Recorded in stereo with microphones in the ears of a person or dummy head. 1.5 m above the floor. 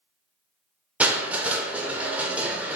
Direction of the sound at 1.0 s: 10° right (ahead or behind).